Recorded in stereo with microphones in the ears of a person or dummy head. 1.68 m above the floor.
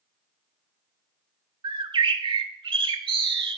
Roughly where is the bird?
Right.